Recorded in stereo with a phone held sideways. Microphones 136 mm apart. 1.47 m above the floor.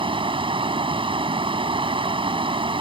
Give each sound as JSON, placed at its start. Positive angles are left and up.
{"t": 0.0, "sound": "running water", "side_deg": -40}